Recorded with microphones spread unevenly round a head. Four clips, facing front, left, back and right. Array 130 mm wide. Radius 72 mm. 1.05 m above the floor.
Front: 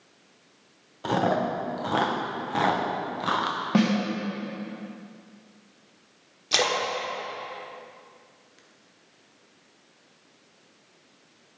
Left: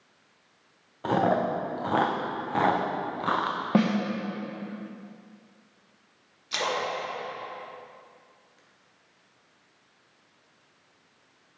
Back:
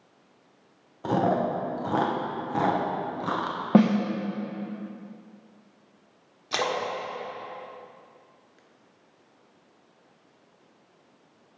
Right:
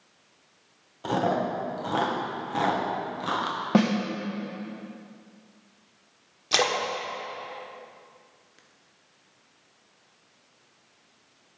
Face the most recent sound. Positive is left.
turn(degrees=-65)